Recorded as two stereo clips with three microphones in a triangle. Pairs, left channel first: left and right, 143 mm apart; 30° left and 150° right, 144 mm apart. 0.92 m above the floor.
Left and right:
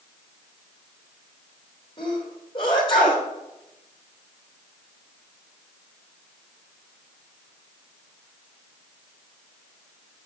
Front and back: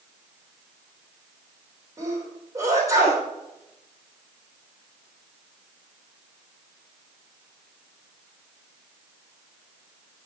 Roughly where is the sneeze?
Behind left.